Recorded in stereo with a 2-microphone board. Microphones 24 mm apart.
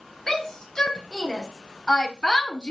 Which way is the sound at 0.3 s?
20° left (ahead or behind).